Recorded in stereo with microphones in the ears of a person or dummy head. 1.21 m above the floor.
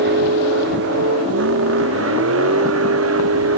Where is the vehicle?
60° right (ahead or behind); by 3.6 s 90° right.